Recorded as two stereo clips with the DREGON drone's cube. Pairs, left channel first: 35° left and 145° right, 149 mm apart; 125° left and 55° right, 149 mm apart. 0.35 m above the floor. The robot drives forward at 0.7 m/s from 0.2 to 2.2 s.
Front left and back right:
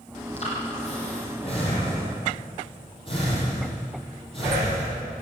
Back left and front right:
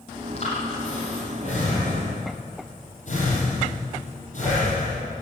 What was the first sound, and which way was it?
Breathing, 80° left.